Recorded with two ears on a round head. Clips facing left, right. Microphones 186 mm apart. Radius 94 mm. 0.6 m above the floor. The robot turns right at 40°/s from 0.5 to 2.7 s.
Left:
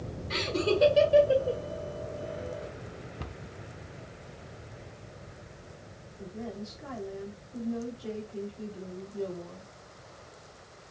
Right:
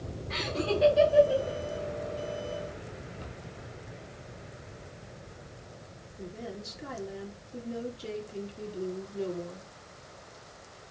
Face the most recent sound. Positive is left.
turn(degrees=-40)  # may be behind; listen again after turning